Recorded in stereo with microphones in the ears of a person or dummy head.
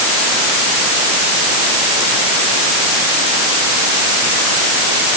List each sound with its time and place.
Only background noise.